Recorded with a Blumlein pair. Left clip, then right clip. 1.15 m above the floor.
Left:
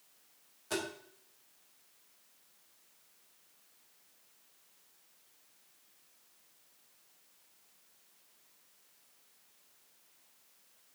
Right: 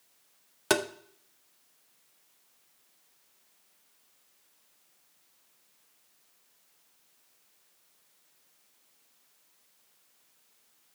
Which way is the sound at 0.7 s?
45° right.